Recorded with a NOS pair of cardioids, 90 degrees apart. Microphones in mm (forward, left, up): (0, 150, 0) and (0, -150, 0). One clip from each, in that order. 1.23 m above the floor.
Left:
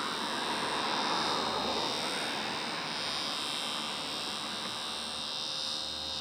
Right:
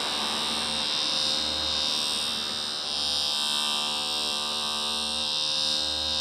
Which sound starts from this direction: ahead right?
A machine running, at 0.0 s.